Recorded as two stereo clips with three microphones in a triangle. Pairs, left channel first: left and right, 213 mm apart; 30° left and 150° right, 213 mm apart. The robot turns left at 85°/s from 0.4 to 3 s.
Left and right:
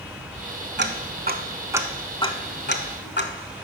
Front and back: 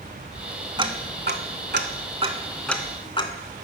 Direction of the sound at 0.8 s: 80° right.